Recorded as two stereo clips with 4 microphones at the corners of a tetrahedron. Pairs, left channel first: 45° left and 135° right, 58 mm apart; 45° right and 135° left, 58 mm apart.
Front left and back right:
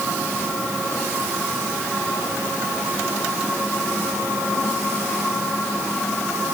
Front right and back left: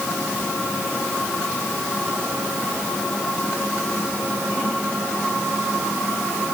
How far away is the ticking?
I don't hear ticking.